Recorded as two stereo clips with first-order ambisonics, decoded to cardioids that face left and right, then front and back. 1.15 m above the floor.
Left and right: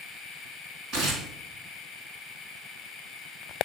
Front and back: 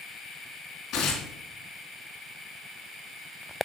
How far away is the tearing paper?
About 3.5 m.